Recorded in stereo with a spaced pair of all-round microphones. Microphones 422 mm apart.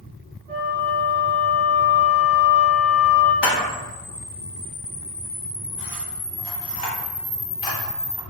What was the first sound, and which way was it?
A flute, 20° right (ahead or behind).